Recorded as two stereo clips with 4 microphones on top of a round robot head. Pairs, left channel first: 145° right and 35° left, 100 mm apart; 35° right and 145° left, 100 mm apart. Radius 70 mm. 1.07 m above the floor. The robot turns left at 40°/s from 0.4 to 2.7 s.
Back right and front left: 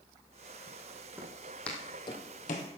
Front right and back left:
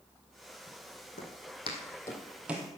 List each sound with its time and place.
1.2 s footsteps: 35° right, 2.5 m; by 2.7 s 155° right, 1.6 m